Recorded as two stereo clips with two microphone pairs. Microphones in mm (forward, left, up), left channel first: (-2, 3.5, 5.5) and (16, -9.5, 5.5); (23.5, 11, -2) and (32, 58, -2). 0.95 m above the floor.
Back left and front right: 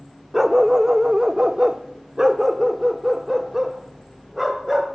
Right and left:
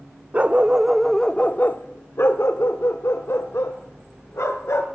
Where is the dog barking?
30° left, 0.7 m; by 4.9 s 105° right, 2 m.